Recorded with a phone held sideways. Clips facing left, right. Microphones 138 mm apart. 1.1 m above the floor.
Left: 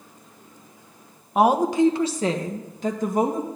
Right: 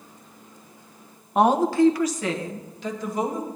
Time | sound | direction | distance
1.4 | a woman speaking | centre (ahead or behind) | 0.9 m